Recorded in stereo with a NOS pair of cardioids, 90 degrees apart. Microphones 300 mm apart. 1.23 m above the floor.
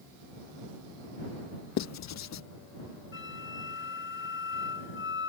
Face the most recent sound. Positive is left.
turn(degrees=40)